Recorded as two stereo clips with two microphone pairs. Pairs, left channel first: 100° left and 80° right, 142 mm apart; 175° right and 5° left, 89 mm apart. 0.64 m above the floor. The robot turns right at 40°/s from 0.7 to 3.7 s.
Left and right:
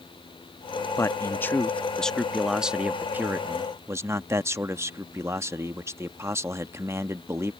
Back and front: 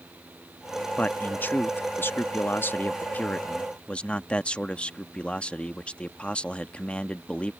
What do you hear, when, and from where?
1.0 s a man speaking: 135° left; by 7.5 s 115° right